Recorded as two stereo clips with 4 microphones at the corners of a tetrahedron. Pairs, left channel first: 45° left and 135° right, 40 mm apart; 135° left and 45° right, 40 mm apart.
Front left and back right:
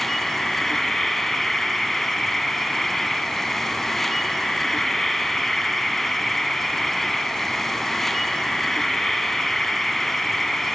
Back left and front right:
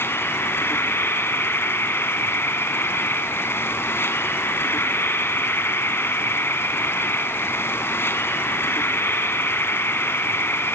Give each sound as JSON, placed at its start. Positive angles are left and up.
{"t": 0.0, "sound": "an insect", "azimuth_deg": 130, "distance_m": 1.4}